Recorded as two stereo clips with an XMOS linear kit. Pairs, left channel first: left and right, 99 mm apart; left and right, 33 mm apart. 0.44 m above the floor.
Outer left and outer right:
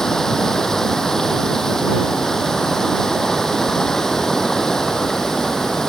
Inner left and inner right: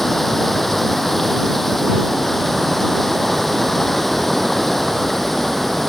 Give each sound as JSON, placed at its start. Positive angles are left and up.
{"t": 0.0, "sound": "running water", "side_deg": 5}